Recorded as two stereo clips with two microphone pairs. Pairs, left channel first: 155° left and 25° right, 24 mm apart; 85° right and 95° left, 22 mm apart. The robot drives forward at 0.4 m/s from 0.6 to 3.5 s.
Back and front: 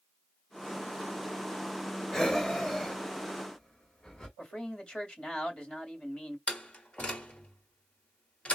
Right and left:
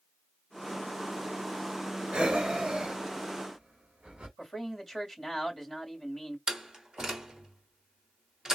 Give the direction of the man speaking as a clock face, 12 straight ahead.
5 o'clock.